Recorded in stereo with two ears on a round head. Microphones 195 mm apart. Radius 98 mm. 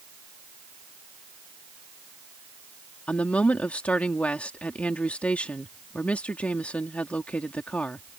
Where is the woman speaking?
5° left (ahead or behind).